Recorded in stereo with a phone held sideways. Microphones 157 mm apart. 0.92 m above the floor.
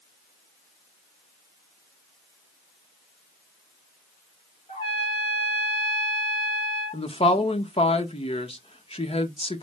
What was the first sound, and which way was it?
A trumpet, 40° left (ahead or behind).